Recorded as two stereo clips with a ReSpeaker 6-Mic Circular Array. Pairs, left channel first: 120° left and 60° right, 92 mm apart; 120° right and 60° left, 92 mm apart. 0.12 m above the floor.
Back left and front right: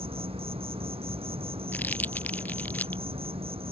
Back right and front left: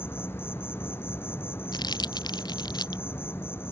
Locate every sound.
0.0 s an insect: 55° right
1.7 s crumpling: 165° right